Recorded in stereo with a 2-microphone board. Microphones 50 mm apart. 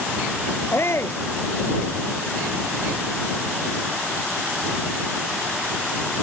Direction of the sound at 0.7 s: 55° left (ahead or behind).